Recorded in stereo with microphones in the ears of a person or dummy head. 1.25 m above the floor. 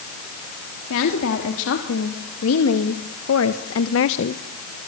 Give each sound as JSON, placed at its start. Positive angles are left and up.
{"t": 0.9, "sound": "a woman speaking", "side_deg": 75, "distance_m": 3.0}